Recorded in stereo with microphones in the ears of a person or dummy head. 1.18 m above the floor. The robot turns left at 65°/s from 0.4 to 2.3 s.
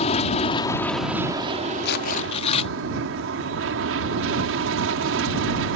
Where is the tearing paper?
70° left; by 2.7 s 40° left.